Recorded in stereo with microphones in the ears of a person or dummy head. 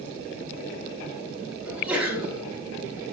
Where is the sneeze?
10° right (ahead or behind), 0.6 m.